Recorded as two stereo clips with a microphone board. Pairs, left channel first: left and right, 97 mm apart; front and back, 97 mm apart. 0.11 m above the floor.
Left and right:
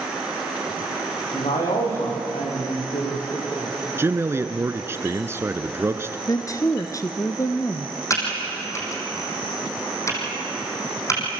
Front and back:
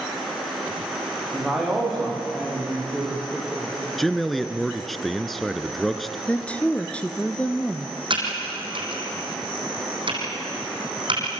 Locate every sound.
1.3 s a man speaking: 90° left, 9.5 m
4.0 s a man speaking: 85° right, 1.1 m
6.3 s a woman speaking: 70° left, 1.4 m
8.1 s typing on a keyboard: 150° left, 4.5 m